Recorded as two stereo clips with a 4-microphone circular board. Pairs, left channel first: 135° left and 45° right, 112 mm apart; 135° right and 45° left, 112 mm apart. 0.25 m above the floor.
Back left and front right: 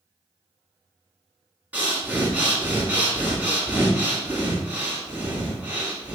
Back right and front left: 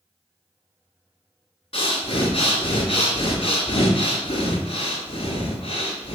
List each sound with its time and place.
1.7 s breathing: 115° right, 1.4 m